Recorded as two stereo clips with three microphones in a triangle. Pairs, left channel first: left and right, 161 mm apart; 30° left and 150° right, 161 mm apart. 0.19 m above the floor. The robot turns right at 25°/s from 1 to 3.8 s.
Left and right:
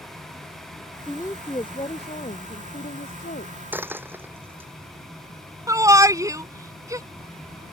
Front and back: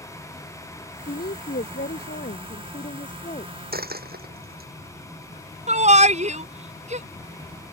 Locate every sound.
1.1 s a woman speaking: 15° left; by 3.5 s 75° left
3.7 s a dropped coin: 170° right
5.7 s a shout: 155° right